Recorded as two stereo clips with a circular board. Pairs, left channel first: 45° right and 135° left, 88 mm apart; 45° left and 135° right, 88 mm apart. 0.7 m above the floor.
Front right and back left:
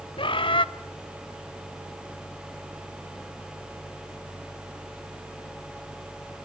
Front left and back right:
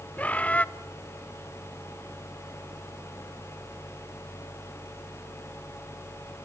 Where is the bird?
30° right, 0.6 m.